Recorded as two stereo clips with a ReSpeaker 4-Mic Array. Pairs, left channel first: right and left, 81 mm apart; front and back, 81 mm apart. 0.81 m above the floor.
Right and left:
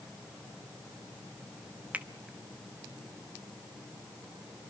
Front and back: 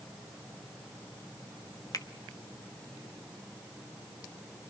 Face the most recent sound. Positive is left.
turn(degrees=25)